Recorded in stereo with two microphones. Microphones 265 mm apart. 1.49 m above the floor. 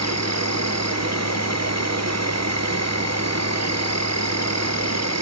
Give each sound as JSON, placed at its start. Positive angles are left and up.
{"t": 0.0, "sound": "an insect", "side_deg": -75, "distance_m": 0.8}